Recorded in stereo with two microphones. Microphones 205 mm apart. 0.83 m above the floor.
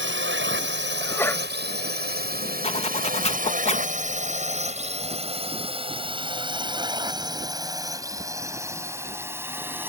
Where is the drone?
65° right (ahead or behind); by 9.9 s 10° right (ahead or behind).